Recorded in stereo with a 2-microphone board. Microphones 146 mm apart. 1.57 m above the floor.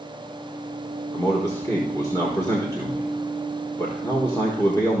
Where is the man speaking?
20° left (ahead or behind), 1.4 m.